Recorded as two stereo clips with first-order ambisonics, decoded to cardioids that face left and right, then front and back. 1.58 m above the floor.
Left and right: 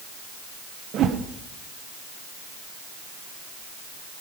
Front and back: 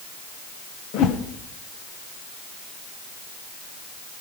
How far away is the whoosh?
About 1.0 m.